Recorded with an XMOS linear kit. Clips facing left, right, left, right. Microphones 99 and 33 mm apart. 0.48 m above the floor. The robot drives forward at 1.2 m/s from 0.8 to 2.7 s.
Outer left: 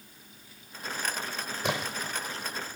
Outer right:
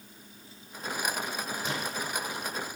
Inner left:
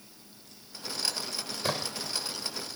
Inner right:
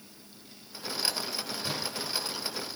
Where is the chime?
I don't hear a chime.